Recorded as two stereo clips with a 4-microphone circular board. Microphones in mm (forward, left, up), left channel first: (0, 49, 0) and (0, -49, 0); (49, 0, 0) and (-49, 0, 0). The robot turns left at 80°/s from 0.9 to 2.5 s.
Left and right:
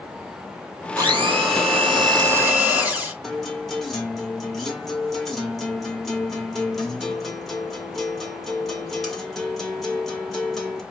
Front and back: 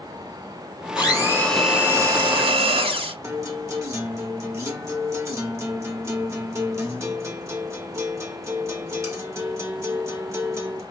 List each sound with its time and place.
1.0 s a blender: 40° right, 3 m; by 3.1 s 165° right, 3 m
3.2 s a guitar: 175° left, 1.4 m